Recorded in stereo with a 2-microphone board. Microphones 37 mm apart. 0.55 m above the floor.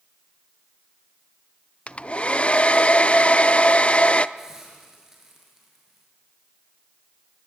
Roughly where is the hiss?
Centre.